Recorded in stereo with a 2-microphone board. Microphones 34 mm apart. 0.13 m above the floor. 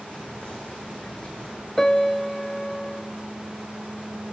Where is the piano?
10° left (ahead or behind), 0.5 m.